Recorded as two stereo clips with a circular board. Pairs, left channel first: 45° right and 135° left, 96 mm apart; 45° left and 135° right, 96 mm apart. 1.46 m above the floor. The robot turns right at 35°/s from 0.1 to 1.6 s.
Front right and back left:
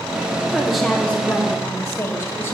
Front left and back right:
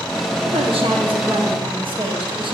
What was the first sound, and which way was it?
A woman speaking, 145° right.